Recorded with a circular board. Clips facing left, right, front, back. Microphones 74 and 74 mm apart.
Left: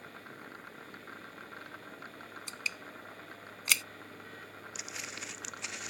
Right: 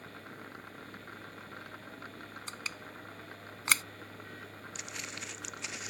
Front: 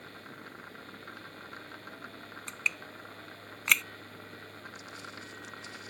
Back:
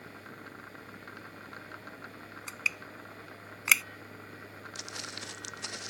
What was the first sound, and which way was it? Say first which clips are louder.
Crushing: left 3 dB, even; 95° right.